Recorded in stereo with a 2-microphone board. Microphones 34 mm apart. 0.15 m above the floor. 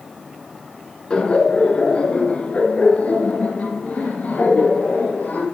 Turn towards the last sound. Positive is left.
turn(degrees=50)  # may be behind; listen again after turning